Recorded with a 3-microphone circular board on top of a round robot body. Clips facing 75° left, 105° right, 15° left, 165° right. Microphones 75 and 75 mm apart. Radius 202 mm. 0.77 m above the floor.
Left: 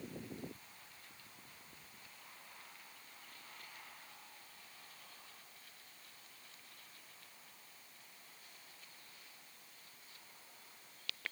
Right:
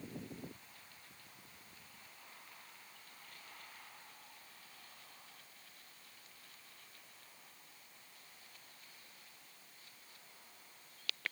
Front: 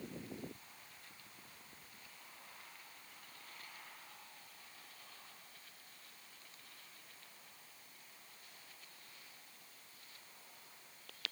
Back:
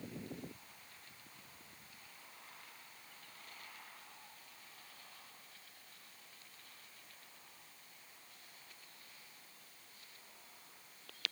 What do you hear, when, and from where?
Only background noise.